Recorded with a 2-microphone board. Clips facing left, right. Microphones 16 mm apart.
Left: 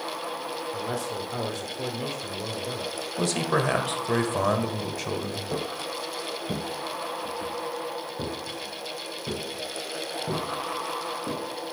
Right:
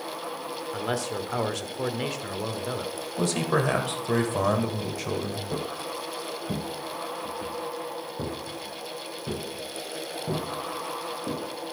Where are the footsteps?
30° left (ahead or behind), 1.3 m; by 11.4 s 10° left (ahead or behind), 4 m.